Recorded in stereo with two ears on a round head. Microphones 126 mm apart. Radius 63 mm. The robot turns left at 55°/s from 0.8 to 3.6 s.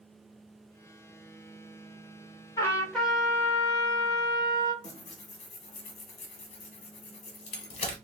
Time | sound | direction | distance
2.6 | a trumpet | 30° left | 0.8 m
4.8 | tearing paper | 45° left (ahead or behind) | 0.9 m